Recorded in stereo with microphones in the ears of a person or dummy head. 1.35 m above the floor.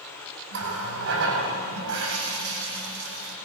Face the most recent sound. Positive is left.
turn(degrees=-70)  # may be behind; listen again after turning